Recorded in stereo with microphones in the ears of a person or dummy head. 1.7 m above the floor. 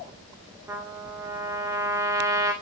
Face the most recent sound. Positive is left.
turn(degrees=-5)  # may be behind; listen again after turning